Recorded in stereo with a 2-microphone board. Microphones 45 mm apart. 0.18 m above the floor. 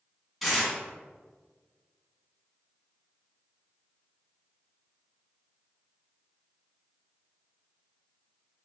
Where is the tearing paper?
Centre (ahead or behind), 1.8 m.